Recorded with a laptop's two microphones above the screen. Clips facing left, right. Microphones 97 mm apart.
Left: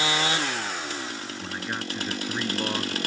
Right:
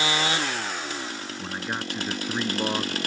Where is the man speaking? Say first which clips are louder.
Right 2 dB; 15° right (ahead or behind).